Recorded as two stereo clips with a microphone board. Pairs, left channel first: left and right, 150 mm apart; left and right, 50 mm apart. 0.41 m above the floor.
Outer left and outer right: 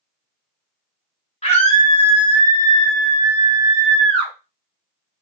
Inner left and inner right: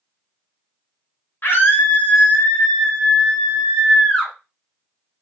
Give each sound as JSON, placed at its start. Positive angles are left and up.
{"t": 1.4, "sound": "a scream", "side_deg": 45, "distance_m": 1.9}